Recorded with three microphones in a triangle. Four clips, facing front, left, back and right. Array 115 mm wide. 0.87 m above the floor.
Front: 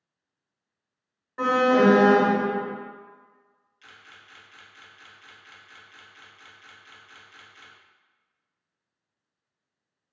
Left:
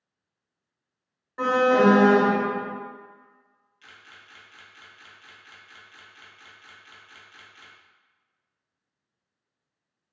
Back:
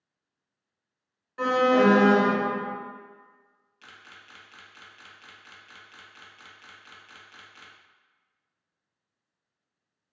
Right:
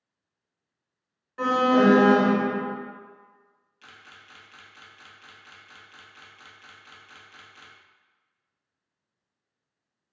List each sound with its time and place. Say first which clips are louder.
1.4 s an alarm: left 1 dB, front 1 dB; 35° left, 0.6 m
3.8 s a camera shutter: right 1 dB, back 1 dB; 150° right, 0.5 m